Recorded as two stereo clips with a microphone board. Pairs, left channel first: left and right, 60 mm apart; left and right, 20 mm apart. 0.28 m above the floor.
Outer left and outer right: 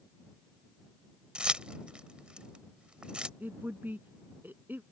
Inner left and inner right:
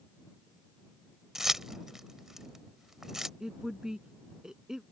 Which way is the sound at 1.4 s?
15° right (ahead or behind).